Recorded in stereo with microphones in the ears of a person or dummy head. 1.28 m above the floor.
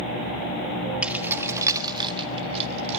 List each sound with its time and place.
1.0 s keys jangling: 10° right (ahead or behind), 1.3 m; by 3.0 s 40° right (ahead or behind), 1.9 m